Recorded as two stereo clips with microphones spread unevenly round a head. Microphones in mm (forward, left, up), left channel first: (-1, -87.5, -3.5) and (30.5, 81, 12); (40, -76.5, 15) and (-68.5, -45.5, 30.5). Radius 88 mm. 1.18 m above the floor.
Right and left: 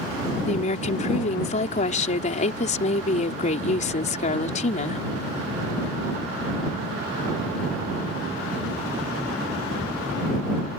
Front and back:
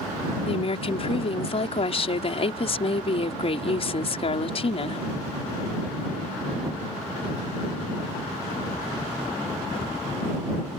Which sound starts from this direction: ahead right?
A woman speaking, at 0.5 s.